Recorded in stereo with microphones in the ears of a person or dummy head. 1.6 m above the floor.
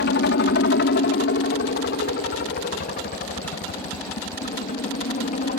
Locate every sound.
0.0 s a helicopter: 55° left (ahead or behind); by 5.6 s 40° left (ahead or behind)